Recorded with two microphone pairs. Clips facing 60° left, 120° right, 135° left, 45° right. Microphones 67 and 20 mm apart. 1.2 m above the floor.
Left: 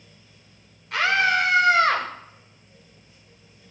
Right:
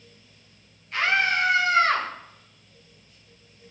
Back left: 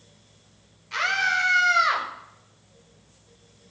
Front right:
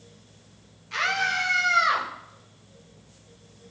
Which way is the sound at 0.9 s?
50° left.